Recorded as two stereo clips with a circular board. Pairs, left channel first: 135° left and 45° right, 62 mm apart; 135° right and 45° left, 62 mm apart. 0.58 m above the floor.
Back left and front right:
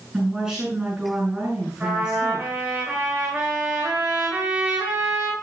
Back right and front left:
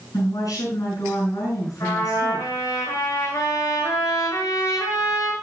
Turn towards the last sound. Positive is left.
turn(degrees=-110)